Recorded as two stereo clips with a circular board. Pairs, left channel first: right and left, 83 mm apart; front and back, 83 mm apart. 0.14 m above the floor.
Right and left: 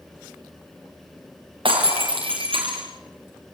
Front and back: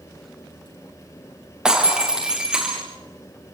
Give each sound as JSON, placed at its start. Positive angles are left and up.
{"t": 1.6, "sound": "breaking glass", "azimuth_deg": 95, "distance_m": 6.0}